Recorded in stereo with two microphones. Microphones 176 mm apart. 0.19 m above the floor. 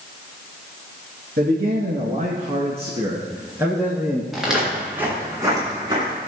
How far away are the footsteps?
About 4.5 m.